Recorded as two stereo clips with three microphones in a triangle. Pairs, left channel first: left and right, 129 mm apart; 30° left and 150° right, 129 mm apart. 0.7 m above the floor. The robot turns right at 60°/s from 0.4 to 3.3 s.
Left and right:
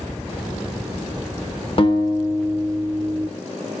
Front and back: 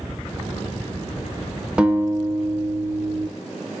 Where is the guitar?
130° left, 0.5 m; by 3.3 s 140° right, 0.5 m.